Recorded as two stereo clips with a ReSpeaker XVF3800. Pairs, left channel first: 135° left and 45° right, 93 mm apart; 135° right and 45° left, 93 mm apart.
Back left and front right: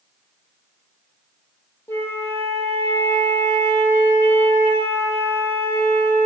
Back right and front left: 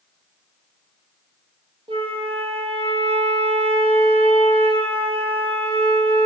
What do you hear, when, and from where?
1.9 s a flute: 70° left, 3.5 m